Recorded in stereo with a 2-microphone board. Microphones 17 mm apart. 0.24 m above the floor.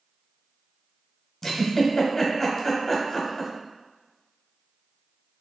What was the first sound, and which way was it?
A giggle, 25° left (ahead or behind).